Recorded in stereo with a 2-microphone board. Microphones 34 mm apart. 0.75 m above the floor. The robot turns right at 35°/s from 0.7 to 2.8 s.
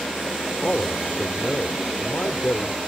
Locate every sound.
0.6 s a man speaking: 45° left; by 2.8 s 115° left